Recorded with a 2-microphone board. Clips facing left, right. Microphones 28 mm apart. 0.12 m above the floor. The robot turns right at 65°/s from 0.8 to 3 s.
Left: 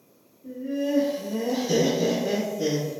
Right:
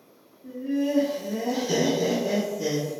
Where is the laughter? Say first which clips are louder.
Right 1 dB; 25° right (ahead or behind), 1.1 m; by 2.9 s 20° left (ahead or behind), 1.1 m.